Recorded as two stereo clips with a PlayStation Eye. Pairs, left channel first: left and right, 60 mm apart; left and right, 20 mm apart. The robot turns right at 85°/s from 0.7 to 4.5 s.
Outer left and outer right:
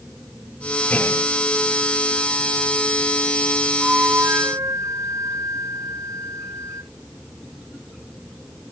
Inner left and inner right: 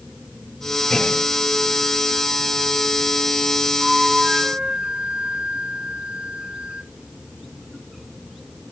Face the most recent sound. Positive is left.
turn(degrees=-120)